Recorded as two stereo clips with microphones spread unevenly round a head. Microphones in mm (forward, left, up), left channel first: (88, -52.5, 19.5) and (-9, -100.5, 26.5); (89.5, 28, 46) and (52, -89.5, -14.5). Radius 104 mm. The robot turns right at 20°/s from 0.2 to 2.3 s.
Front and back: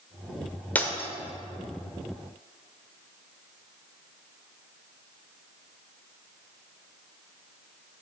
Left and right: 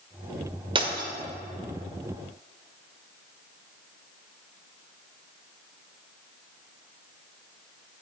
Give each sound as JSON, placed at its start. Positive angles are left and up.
{"t": 0.8, "sound": "breaking glass", "azimuth_deg": -50, "distance_m": 1.7}